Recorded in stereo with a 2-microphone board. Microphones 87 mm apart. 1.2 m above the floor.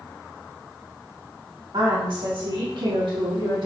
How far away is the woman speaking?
About 2.5 m.